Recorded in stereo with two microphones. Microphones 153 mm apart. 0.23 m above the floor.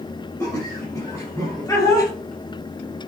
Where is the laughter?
20° left (ahead or behind), 5.5 m.